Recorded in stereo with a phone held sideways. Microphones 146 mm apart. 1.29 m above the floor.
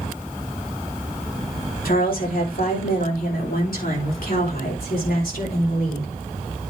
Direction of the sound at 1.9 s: 80° left.